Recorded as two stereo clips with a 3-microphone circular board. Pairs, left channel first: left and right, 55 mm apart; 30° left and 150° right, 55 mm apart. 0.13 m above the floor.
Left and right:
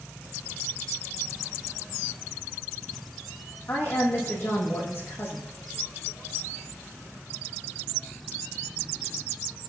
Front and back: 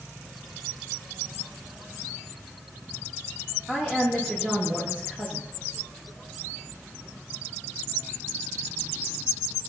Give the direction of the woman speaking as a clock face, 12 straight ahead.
7 o'clock.